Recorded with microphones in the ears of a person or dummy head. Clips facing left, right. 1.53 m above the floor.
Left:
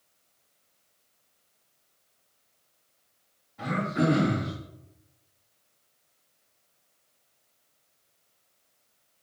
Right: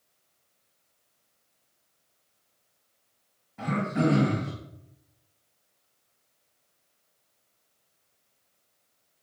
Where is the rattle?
I don't hear a rattle.